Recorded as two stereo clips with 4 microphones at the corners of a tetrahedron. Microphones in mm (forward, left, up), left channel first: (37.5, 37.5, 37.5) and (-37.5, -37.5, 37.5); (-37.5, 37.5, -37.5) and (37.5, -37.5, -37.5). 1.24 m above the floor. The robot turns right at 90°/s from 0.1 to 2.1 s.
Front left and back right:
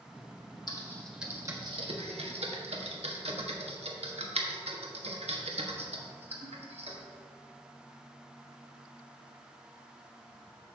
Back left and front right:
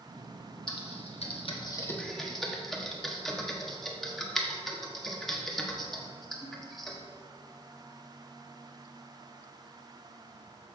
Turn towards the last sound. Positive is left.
turn(degrees=-140)